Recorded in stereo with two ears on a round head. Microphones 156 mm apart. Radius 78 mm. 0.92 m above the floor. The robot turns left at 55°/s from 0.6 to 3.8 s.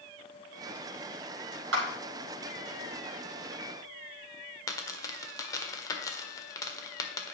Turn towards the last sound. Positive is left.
turn(degrees=20)  # may be behind; listen again after turning